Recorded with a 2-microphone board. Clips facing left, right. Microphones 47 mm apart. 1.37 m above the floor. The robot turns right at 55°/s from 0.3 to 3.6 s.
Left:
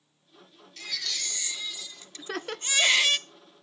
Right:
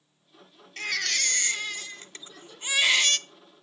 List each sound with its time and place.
0.8 s a baby crying: 120° right, 0.6 m; by 3.2 s 15° left, 0.6 m
2.2 s laughter: 70° left (ahead or behind), 0.5 m; by 3.1 s 45° left (ahead or behind), 0.5 m